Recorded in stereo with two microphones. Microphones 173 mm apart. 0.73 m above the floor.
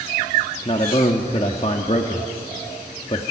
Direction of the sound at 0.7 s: 35° left (ahead or behind).